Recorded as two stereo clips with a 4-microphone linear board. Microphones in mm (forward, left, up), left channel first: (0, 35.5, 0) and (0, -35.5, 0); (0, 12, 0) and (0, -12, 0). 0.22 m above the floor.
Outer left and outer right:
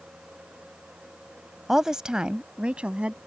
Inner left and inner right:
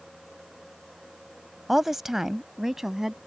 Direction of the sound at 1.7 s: 5° right (ahead or behind).